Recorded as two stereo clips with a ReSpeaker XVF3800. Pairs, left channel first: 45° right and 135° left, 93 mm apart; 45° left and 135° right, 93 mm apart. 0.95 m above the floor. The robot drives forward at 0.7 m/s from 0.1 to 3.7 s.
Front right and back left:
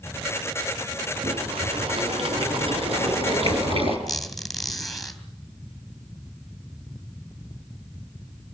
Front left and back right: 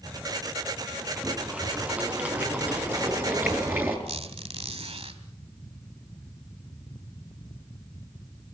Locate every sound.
1.2 s boiling: 145° left, 3.5 m; by 4.0 s 155° left, 5 m
4.1 s a squeak: 135° right, 3 m